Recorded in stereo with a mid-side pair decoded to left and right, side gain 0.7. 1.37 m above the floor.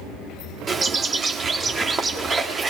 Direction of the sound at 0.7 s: 25° right.